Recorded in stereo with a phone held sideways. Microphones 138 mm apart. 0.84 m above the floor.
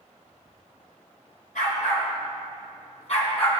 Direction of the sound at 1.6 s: 75° left (ahead or behind).